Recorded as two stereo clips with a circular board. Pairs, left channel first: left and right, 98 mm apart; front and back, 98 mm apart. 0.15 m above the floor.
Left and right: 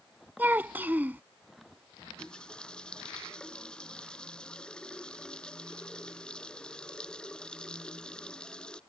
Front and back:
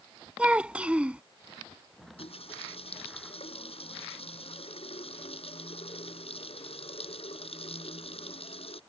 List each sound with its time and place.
0.4 s a child speaking: 120° right
2.0 s a running tap: 10° left